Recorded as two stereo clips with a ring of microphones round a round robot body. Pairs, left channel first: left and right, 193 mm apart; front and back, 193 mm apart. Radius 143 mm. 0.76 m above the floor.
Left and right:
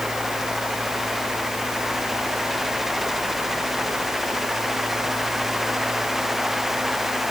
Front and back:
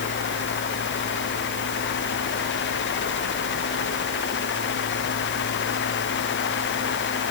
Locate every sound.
Only background noise.